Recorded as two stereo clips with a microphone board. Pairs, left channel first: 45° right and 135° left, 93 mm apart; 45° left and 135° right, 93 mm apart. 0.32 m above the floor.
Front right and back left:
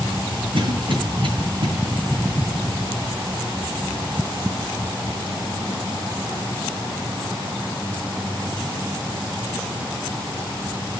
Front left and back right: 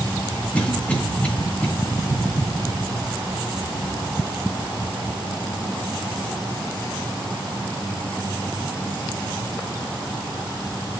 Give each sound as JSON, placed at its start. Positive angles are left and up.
{"t": 0.5, "sound": "a cough", "azimuth_deg": 120, "distance_m": 2.5}